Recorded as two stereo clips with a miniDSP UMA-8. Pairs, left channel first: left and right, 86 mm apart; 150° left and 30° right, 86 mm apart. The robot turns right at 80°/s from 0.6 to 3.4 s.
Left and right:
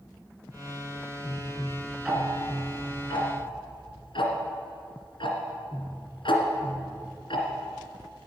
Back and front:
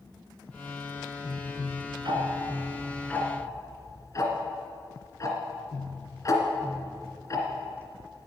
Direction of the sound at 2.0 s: 10° right.